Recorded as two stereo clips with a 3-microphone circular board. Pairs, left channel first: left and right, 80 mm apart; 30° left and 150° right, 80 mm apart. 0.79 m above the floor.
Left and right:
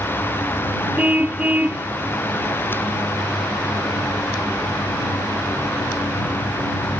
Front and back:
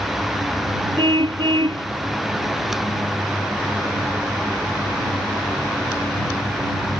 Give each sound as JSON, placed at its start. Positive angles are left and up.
{"t": 1.0, "sound": "a car horn", "azimuth_deg": -160}